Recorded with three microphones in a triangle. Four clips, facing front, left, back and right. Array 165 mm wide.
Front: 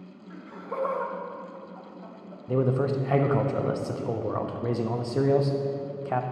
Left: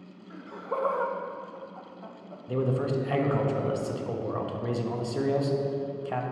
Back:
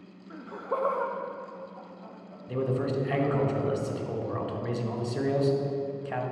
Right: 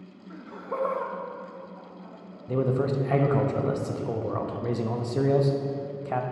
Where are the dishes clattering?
I don't hear dishes clattering.